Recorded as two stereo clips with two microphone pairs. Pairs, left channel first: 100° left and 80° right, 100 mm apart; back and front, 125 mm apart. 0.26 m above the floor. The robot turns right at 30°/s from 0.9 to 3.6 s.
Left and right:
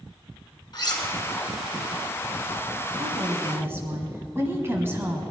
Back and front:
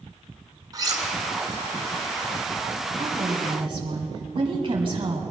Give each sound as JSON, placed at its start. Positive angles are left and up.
{"t": 0.7, "sound": "cutlery clinking", "azimuth_deg": 60, "distance_m": 2.0}
{"t": 3.0, "sound": "a woman speaking", "azimuth_deg": -40, "distance_m": 1.9}